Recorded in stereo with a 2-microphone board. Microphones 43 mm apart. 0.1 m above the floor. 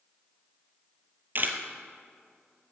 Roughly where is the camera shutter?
Right.